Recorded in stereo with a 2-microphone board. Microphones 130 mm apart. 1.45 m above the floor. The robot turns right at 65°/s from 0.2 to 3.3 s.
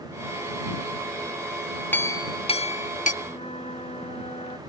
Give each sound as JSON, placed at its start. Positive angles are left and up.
{"t": 1.9, "sound": "a clink", "side_deg": 15}
{"t": 3.2, "sound": "a flute", "side_deg": 55}